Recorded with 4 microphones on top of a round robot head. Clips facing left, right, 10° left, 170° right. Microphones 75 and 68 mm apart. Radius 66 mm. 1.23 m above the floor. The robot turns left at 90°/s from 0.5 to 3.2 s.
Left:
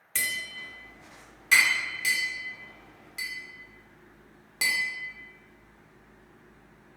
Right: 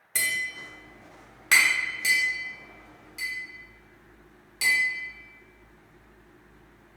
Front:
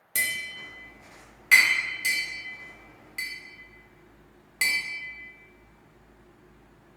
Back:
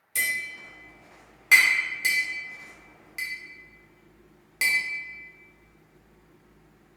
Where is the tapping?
10° right, 1.0 m; by 7.0 s 105° left, 1.0 m.